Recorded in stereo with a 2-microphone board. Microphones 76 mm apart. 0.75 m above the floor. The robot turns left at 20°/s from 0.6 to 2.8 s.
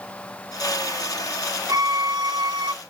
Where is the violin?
50° right (ahead or behind), 0.5 m; by 2.7 s 70° right (ahead or behind), 0.5 m.